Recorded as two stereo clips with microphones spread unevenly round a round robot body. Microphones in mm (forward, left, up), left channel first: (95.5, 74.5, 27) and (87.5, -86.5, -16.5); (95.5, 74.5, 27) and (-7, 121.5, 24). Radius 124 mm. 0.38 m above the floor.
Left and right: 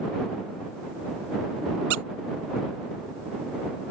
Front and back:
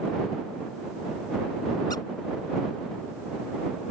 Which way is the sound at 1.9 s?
95° right.